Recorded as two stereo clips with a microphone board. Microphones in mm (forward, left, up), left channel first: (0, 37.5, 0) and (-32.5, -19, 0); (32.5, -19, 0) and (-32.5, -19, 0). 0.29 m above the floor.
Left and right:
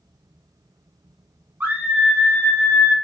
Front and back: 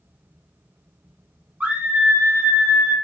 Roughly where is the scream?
Behind right.